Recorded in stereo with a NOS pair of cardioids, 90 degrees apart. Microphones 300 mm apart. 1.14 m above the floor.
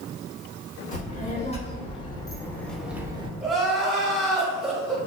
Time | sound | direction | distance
0.9 | a child speaking | 25° left | 1.6 m
3.4 | crying | straight ahead | 0.7 m